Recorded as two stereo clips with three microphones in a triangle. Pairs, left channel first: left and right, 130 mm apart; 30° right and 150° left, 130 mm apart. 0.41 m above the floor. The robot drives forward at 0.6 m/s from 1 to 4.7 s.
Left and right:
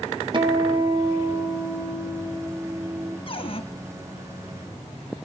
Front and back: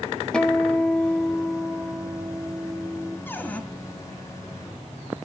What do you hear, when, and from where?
0.3 s a guitar: 110° right, 1.1 m; by 3.2 s 155° right, 1.9 m
3.3 s a cupboard door: 45° left, 1.7 m; by 3.6 s 50° left, 1.5 m